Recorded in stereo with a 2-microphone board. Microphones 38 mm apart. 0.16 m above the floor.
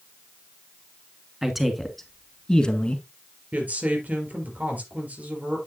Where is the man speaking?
10° right (ahead or behind), 1.8 m; by 3.0 s 30° left (ahead or behind), 1.7 m.